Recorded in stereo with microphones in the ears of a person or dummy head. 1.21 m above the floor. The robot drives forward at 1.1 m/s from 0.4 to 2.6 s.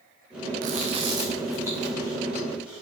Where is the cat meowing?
I don't hear a cat meowing.